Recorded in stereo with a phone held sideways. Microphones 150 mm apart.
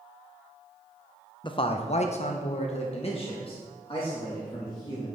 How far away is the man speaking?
About 0.7 m.